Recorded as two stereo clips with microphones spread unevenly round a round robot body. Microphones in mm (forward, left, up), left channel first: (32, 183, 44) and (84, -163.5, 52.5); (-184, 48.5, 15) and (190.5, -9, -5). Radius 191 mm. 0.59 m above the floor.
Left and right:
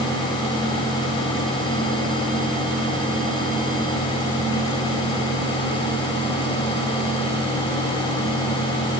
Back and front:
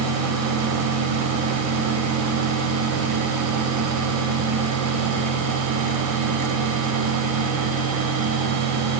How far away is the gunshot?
No gunshot in this recording.